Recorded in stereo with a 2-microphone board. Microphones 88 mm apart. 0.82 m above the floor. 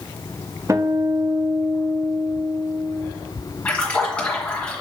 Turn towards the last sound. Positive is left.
turn(degrees=15)  # may be behind; listen again after turning